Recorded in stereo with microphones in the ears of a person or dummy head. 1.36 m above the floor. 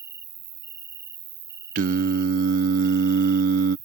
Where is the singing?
40° right (ahead or behind).